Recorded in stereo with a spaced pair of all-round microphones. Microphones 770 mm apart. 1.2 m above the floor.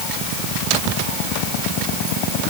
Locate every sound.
Only background noise.